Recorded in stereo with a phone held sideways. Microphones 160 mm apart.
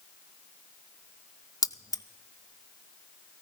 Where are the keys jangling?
20° left (ahead or behind), 0.6 m.